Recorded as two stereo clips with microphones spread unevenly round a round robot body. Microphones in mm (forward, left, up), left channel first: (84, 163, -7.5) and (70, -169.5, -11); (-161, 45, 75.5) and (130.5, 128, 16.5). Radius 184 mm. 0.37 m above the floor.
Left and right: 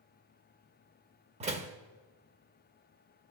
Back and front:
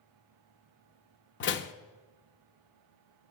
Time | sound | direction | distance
1.4 | a door slam | 140° right | 0.5 m